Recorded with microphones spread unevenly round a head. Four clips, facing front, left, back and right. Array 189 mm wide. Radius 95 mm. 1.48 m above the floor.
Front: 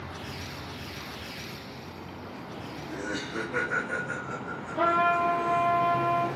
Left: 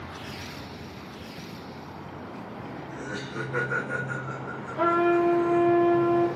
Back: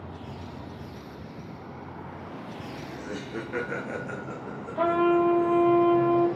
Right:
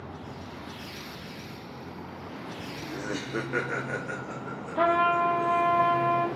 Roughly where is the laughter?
Ahead right.